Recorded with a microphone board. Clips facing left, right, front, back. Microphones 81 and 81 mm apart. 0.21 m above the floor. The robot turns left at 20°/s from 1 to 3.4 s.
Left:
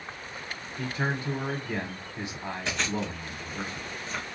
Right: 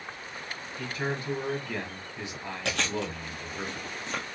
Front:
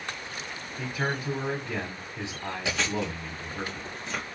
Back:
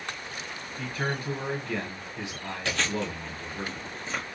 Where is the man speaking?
60° left, 1.1 m; by 3.6 s 15° left, 1.1 m.